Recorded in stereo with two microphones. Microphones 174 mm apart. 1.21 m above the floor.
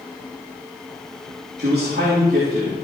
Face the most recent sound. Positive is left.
turn(degrees=-70)  # may be behind; listen again after turning